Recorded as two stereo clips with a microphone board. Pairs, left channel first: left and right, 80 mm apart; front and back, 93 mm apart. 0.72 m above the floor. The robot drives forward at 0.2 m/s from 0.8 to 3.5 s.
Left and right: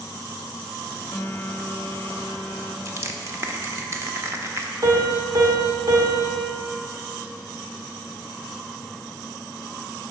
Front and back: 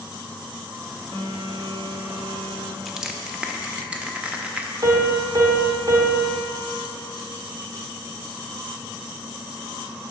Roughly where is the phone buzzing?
Behind left.